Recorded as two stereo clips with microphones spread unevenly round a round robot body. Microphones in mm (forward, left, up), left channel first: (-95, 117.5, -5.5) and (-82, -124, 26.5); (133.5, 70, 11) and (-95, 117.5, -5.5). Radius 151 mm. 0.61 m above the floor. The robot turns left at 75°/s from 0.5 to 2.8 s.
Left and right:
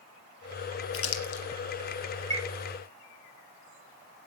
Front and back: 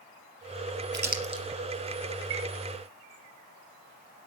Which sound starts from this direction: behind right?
A chime, at 2.3 s.